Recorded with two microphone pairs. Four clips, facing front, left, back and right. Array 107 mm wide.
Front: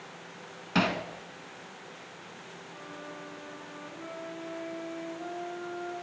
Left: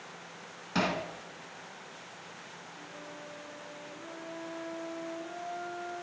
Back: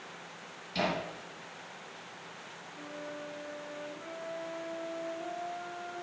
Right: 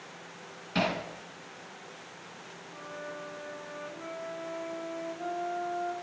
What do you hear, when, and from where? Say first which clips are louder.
0.8 s hammering: right 1 dB, front 4 dB; 25° left, 1.9 m
2.7 s a flute: right 7 dB, back 2 dB; 75° right, 2.0 m